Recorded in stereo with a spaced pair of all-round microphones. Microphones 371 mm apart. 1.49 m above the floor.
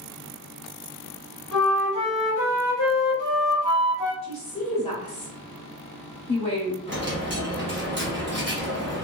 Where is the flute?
55° left (ahead or behind), 1.1 m.